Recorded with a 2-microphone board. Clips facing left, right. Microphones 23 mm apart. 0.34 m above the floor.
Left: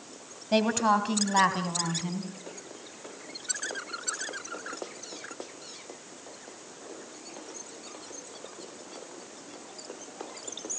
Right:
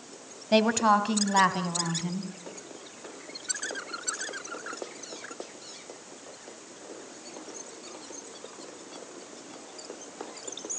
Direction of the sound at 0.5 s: 15° right (ahead or behind).